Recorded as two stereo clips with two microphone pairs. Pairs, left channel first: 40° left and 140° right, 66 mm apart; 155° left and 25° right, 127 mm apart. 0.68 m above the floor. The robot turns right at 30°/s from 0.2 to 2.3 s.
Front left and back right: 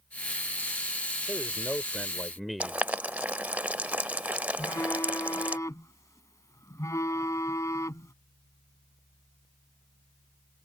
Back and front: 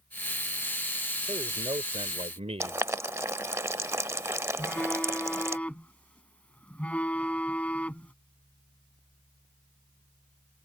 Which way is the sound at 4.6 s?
75° left.